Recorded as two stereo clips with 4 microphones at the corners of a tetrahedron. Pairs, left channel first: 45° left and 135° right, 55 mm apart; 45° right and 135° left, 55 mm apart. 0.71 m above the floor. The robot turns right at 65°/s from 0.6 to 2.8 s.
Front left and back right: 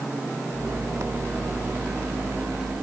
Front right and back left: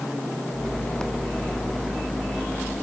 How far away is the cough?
No cough in this recording.